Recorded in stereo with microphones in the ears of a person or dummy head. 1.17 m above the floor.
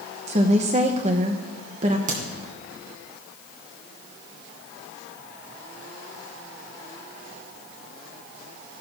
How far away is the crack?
About 2.5 m.